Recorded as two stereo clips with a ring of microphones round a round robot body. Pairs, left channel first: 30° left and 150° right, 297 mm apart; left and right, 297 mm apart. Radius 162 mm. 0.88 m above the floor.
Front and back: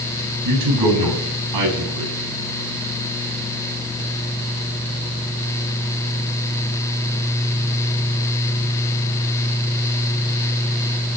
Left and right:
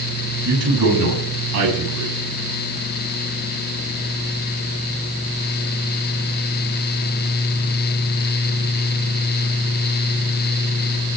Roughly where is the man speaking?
Behind right.